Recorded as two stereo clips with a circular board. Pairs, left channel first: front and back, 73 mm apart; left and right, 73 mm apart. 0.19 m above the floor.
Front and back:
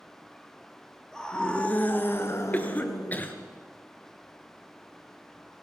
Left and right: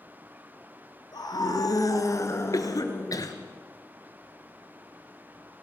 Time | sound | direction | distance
1.1 | a scream | 80° left | 3.5 m
2.5 | a cough | 65° left | 3 m